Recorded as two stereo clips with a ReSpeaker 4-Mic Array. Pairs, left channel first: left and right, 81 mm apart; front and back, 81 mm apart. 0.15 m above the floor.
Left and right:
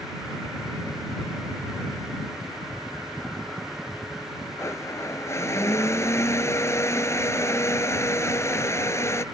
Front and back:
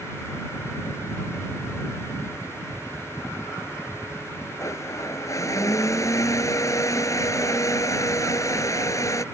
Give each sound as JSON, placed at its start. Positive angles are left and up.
{"t": 4.6, "sound": "a blender", "azimuth_deg": 40}